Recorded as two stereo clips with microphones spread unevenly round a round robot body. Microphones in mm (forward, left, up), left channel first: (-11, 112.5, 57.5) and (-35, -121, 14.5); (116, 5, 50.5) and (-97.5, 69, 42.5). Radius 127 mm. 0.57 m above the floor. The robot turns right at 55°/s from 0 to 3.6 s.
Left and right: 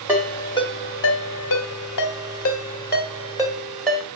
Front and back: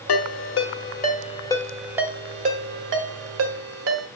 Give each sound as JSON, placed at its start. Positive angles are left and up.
{"t": 0.1, "sound": "a ringtone", "azimuth_deg": -20, "distance_m": 1.3}